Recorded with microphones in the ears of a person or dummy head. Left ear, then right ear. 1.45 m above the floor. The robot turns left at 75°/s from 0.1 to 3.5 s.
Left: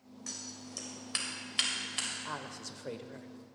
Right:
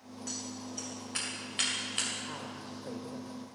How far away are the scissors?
About 2.5 m.